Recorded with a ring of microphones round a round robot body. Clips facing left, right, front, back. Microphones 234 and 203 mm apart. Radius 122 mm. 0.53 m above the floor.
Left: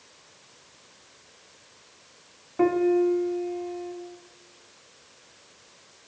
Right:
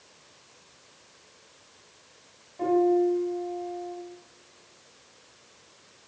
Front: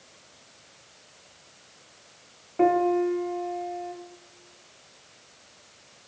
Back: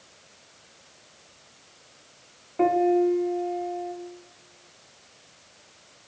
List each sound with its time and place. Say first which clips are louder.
2.6 s a piano: left 1 dB, back 1 dB; 90° left, 1.4 m